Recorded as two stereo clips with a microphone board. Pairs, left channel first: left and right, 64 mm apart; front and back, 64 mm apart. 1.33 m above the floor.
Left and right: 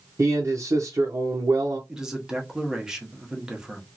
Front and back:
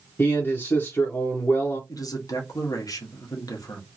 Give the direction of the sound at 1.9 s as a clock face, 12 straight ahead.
12 o'clock.